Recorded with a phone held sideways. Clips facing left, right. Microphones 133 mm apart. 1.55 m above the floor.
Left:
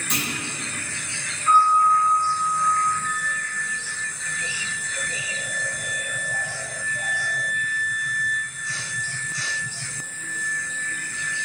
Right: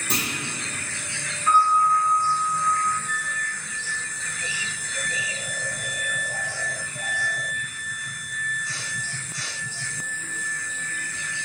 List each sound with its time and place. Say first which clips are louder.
0.1 s a clunk: right 1 dB; 35° right (ahead or behind), 0.8 m
1.5 s a piano: left 2 dB; 15° right (ahead or behind), 1.3 m
3.0 s a flute: left 2 dB; 60° left (ahead or behind), 1.9 m